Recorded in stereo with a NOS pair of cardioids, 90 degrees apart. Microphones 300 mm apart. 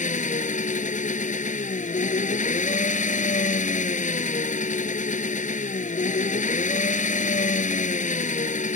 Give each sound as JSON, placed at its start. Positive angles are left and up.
{"t": 0.0, "sound": "an engine running", "azimuth_deg": 25}